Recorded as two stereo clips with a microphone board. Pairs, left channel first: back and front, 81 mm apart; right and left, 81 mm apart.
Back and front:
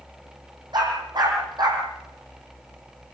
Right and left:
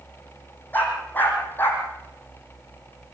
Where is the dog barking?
25° right, 7.5 m; by 1.8 s 30° right, 6.5 m.